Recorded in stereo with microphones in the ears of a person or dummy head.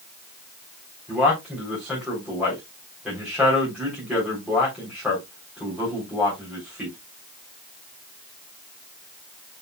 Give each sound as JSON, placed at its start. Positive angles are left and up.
{"t": 1.1, "sound": "a man speaking", "side_deg": -5, "distance_m": 3.5}